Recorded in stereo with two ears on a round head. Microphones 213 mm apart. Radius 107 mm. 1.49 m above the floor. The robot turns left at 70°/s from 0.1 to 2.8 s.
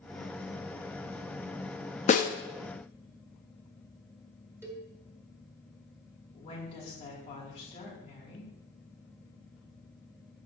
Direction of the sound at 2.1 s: 30° left (ahead or behind).